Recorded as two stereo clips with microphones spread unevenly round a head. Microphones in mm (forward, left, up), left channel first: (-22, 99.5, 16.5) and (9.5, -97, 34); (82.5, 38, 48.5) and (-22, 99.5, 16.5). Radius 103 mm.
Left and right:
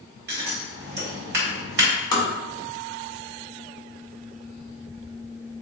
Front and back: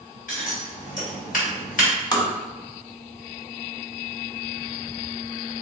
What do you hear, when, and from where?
0.3 s scissors: 45° right, 1.5 m
2.1 s tapping: 25° left, 1.0 m